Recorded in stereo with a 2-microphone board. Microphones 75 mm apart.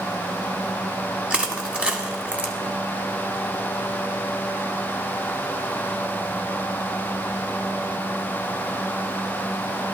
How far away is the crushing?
About 1.5 m.